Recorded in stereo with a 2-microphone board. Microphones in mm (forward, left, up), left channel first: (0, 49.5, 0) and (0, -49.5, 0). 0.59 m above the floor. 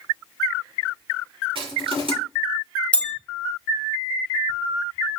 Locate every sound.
1.6 s crushing: 65° right (ahead or behind), 5 m
2.9 s a bell: 10° left (ahead or behind), 0.8 m